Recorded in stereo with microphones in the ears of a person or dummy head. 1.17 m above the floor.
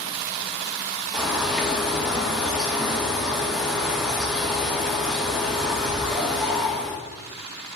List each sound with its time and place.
1.1 s a bird: centre (ahead or behind), 0.5 m